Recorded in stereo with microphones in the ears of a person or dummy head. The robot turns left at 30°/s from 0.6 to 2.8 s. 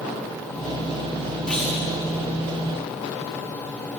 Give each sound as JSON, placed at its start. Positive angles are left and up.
{"t": 1.5, "sound": "a clunk", "side_deg": 0, "distance_m": 5.0}